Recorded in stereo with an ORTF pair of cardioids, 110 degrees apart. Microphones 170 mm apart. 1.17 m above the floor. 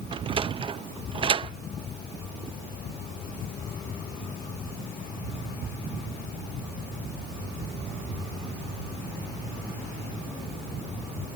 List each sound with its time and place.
0.1 s a sliding door: 30° right, 0.6 m